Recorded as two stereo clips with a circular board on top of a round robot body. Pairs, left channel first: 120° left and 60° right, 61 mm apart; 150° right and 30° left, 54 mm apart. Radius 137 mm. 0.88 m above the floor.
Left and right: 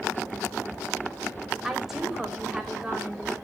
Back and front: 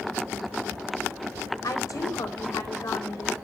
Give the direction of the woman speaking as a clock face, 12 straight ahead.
5 o'clock.